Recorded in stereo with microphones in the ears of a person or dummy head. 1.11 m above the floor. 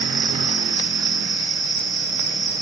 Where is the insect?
40° right (ahead or behind), 2.0 m.